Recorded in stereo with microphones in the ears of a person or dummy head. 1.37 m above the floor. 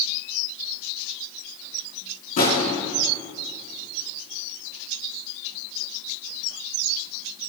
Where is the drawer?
45° left (ahead or behind), 5.5 m.